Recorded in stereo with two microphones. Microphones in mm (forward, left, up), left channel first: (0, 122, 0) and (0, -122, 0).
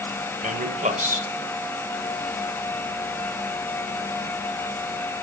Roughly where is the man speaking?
Right.